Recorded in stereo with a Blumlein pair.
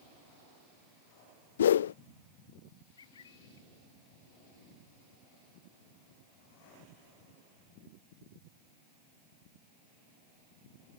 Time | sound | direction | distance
1.6 | a whoosh | 60° left | ?
3.0 | a bird | 65° left | ?